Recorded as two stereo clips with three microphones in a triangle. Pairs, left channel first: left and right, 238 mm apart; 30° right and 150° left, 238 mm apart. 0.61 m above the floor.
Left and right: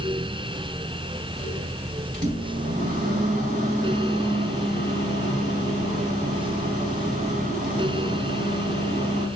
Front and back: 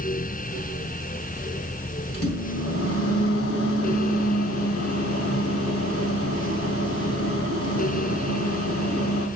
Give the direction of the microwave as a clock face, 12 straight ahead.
1 o'clock.